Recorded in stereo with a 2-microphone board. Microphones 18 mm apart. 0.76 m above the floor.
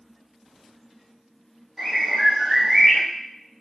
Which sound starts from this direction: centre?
A bird, at 1.8 s.